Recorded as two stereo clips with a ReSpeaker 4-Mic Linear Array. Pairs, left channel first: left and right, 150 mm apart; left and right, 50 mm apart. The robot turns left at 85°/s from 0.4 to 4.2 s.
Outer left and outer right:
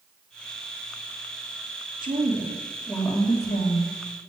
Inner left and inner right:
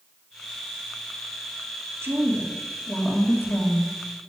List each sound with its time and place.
2.0 s a woman speaking: 110° right, 2.5 m; by 3.9 s 90° left, 2.5 m